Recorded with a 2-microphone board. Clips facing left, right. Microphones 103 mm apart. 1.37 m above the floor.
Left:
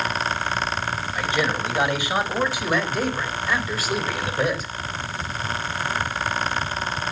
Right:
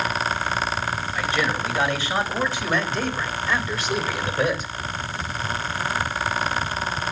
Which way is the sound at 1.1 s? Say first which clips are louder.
Left 1 dB; 20° left (ahead or behind).